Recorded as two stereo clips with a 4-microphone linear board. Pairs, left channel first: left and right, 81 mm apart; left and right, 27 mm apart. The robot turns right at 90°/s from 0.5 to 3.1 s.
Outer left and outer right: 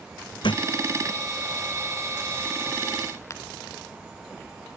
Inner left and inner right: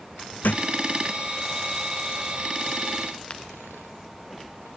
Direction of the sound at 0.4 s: 80° left.